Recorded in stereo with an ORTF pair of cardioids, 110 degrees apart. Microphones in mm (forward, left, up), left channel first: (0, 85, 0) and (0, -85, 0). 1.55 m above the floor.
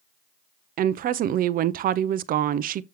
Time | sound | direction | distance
0.8 | a woman speaking | 55° right | 0.7 m